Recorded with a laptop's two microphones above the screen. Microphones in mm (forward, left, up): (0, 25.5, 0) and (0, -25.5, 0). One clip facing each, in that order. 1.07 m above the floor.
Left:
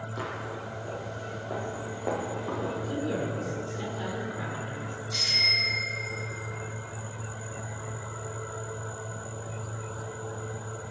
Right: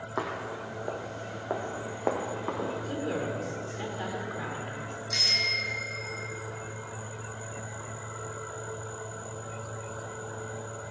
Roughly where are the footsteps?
Right.